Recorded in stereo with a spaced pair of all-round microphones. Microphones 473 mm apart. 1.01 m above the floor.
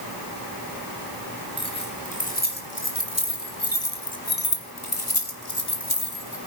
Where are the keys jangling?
10° left (ahead or behind), 4.5 m; by 6.4 s 60° left (ahead or behind), 3 m.